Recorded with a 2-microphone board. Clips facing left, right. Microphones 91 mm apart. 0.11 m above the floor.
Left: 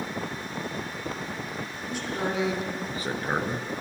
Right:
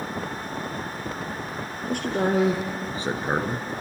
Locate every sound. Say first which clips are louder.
1.8 s a man speaking: right 6 dB; 55° right (ahead or behind), 3 m; by 3.7 s centre (ahead or behind), 1.8 m